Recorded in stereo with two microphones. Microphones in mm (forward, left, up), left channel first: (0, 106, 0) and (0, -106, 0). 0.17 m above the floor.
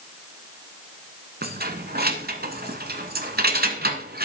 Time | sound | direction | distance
1.4 | keys jangling | 50° right (ahead or behind) | 1.3 m